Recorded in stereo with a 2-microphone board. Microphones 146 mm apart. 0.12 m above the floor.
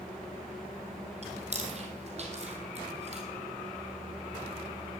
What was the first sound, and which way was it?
Chewing, 45° right (ahead or behind).